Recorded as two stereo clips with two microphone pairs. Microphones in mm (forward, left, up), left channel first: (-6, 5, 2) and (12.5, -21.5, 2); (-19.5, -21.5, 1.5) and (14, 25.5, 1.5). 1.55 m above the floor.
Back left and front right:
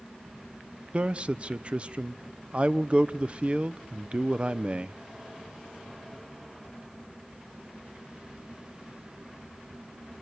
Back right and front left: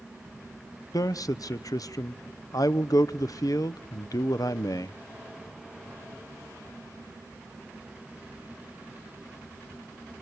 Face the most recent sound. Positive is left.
turn(degrees=-115)